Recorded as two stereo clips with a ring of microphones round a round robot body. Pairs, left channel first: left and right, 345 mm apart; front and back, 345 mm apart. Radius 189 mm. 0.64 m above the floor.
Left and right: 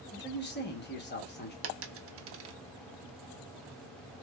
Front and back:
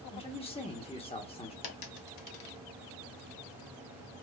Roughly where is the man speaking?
Ahead left.